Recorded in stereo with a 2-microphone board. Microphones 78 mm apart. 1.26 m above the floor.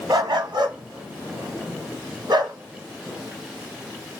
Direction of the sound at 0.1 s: 65° right (ahead or behind).